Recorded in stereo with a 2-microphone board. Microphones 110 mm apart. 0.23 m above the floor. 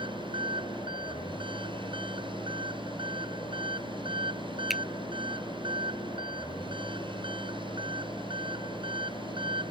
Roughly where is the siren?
I don't hear a siren.